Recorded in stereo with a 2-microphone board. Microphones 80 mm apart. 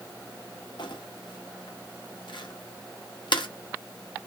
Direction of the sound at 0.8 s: 70° left (ahead or behind).